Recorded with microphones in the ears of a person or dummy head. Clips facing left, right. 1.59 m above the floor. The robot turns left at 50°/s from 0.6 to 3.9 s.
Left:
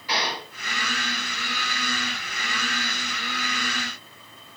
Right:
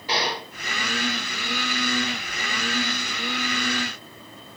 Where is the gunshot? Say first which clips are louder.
Right 2 dB; 30° right (ahead or behind), 7 m.